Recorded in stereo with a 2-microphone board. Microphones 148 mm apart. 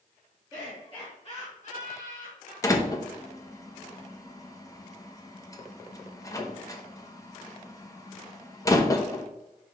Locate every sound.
0.5 s laughter: 25° left (ahead or behind), 2 m; by 3.4 s 80° left, 3.5 m
2.6 s a door slam: 20° left (ahead or behind), 0.9 m